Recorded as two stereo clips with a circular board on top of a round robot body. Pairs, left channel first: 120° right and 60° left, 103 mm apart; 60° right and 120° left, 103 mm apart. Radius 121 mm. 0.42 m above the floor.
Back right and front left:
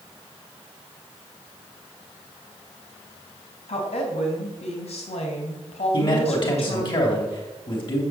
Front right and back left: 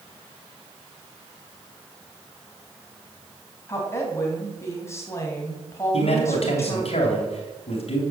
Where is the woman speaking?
125° right, 3.5 m.